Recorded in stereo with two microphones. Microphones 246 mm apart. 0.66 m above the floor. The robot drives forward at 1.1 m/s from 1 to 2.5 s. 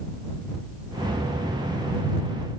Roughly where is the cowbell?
I don't hear a cowbell.